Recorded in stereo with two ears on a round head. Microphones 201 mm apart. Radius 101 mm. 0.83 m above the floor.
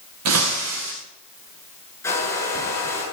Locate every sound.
0.2 s breaking glass: 75° right (ahead or behind), 5 m
2.0 s a hair dryer: 15° left (ahead or behind), 7.5 m